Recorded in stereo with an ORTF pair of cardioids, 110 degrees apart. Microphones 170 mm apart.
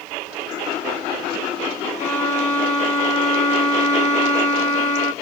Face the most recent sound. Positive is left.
turn(degrees=45)